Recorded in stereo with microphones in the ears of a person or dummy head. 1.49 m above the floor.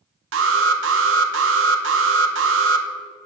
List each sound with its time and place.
0.3 s an alarm: 75° right (ahead or behind), 1.1 m